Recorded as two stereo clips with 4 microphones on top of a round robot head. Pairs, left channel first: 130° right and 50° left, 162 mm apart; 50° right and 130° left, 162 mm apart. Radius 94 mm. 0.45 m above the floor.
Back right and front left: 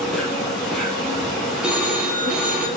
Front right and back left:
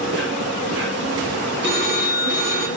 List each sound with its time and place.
0.0 s an insect: 145° left, 5.5 m
1.6 s a phone ringing: 135° left, 2.5 m